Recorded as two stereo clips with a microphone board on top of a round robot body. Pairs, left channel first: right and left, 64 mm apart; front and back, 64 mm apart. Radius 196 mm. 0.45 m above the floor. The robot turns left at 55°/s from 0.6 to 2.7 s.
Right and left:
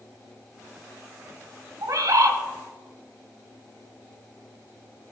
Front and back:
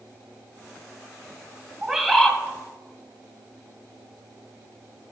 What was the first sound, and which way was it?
A bird, 100° left.